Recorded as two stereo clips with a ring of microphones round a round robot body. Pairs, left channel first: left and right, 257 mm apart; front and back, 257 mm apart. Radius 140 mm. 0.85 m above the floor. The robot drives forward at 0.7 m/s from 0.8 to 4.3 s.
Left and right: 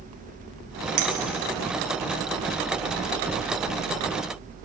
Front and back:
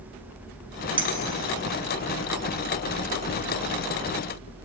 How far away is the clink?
About 1.2 m.